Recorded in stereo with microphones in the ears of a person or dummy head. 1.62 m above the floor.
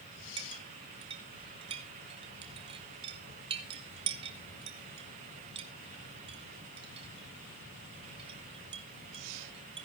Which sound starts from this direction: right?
A clink, at 0.4 s.